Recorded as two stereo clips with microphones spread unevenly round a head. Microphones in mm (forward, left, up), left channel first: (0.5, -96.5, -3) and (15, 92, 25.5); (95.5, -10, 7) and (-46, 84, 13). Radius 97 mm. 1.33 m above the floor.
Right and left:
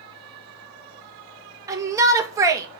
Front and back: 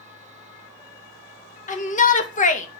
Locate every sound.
1.7 s a shout: 10° left, 2.5 m